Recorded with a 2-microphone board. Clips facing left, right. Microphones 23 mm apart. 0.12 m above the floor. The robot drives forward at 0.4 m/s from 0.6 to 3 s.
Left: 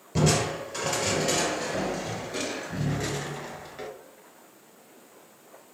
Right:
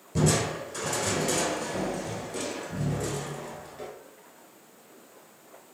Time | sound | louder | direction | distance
0.1 | crushing | left 1 dB | 30° left (ahead or behind) | 1.8 m